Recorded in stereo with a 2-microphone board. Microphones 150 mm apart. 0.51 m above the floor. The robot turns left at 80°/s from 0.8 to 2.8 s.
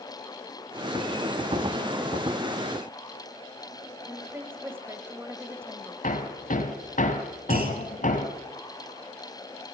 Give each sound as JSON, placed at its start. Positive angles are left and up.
{"t": 4.1, "sound": "a woman speaking", "side_deg": -15, "distance_m": 2.5}
{"t": 6.0, "sound": "hammering", "side_deg": 60, "distance_m": 2.5}
{"t": 7.5, "sound": "a clunk", "side_deg": -80, "distance_m": 3.5}